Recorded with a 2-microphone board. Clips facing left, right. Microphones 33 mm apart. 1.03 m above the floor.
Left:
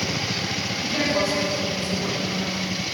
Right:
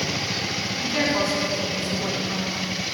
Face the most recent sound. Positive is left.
turn(degrees=-20)  # may be behind; listen again after turning